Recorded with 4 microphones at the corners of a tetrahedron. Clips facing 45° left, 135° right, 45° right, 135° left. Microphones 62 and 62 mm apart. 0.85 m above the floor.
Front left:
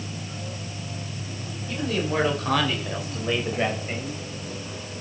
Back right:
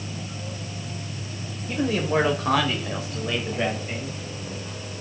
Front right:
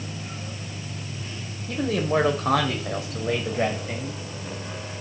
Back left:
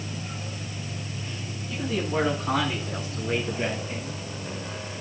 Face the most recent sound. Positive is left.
turn(degrees=-25)